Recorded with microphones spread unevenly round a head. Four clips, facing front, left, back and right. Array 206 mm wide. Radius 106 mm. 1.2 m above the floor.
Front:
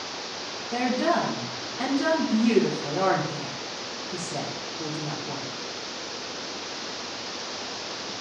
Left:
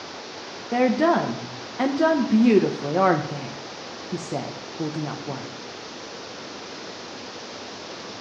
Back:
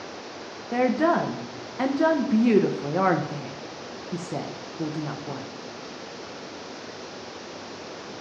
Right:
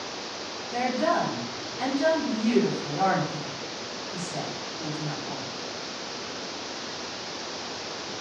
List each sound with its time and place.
0.7 s a woman speaking: 120° left, 1.0 m